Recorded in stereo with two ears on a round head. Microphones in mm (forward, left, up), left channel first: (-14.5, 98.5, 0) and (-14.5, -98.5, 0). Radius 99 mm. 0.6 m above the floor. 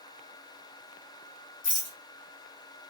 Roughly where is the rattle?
Left.